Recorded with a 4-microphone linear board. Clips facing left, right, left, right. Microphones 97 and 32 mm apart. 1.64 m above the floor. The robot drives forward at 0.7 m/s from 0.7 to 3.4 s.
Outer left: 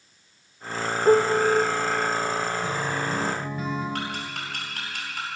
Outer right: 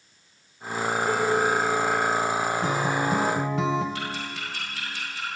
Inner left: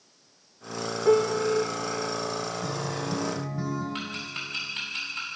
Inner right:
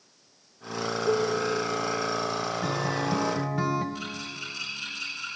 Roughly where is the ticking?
Left.